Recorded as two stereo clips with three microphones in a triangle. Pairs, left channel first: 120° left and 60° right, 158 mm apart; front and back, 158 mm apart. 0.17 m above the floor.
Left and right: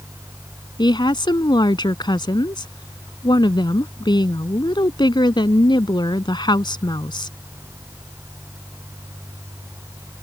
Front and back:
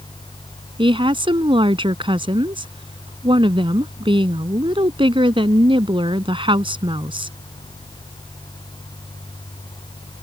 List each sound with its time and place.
0.8 s a woman speaking: 155° left